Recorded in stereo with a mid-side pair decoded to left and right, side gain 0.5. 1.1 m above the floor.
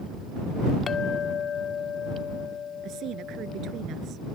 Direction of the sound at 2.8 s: 65° right.